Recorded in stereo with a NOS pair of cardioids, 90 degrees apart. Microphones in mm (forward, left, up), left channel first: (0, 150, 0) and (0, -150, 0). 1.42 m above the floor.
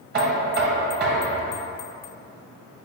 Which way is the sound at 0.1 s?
35° right.